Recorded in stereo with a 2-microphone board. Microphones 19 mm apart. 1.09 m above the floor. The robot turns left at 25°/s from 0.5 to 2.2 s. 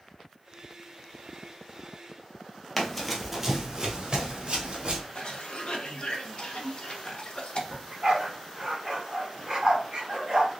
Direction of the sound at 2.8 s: 15° left (ahead or behind).